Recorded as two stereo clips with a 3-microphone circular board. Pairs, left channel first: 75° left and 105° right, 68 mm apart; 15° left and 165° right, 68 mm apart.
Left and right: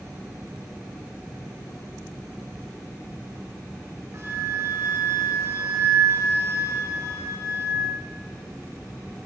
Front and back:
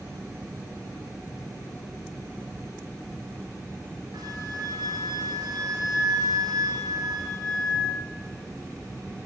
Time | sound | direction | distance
4.1 | a flute | 160° right | 8.5 m